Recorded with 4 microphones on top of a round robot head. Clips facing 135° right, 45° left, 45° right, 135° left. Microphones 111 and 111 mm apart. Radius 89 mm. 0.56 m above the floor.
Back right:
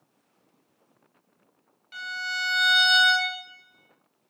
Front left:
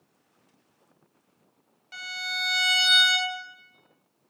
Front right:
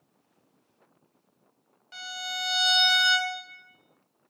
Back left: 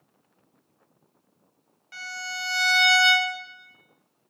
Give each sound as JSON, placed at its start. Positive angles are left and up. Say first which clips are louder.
{"t": 1.9, "sound": "a violin", "louder": "back right 3 dB, back left 1 dB", "azimuth_deg": 20, "distance_m": 0.9}